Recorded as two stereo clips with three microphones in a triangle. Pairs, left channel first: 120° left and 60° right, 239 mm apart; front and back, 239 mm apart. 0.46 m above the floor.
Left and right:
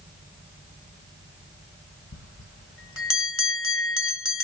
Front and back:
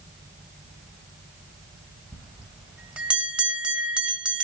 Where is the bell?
95° left, 1.2 m.